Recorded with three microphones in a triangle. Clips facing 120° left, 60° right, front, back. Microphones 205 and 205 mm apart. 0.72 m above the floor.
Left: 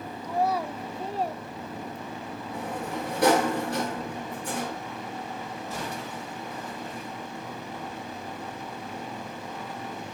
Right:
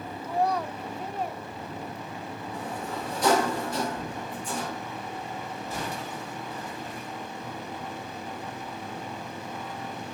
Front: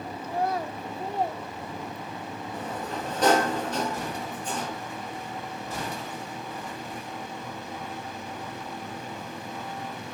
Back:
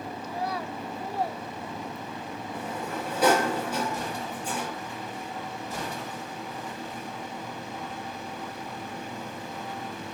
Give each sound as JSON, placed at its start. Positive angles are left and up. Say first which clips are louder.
{"t": 0.2, "sound": "a child speaking", "louder": "even, front 5 dB", "azimuth_deg": 25, "distance_m": 1.5}
{"t": 2.5, "sound": "a sliding door", "louder": "left 3 dB, even", "azimuth_deg": 100, "distance_m": 5.5}